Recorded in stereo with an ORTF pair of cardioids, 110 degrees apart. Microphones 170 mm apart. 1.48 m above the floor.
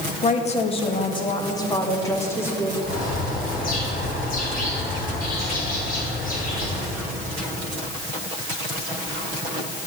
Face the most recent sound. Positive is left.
turn(degrees=55)